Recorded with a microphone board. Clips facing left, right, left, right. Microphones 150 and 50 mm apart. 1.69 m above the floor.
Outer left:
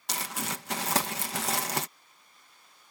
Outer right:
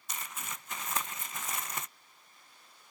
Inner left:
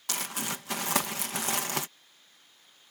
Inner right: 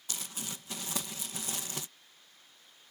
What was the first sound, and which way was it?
Crumpling, 75° left (ahead or behind).